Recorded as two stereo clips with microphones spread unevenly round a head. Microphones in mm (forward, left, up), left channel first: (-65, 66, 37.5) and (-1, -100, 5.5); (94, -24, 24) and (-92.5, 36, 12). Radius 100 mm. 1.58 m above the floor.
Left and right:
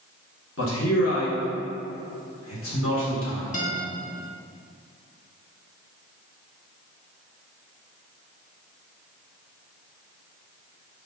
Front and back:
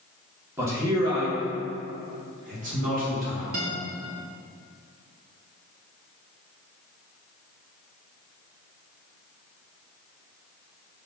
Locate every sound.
0.6 s a man speaking: 85° left, 1.6 m; by 3.4 s 115° left, 2.5 m
3.5 s a guitar: 145° left, 1.7 m